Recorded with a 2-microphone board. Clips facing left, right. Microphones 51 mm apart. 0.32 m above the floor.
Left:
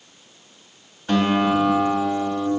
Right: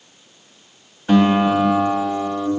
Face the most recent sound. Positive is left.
turn(degrees=-10)  # may be behind; listen again after turning